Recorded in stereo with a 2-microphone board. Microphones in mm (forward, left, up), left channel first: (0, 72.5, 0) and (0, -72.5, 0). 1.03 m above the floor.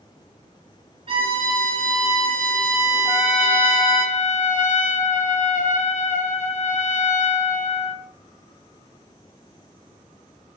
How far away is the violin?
About 1.8 m.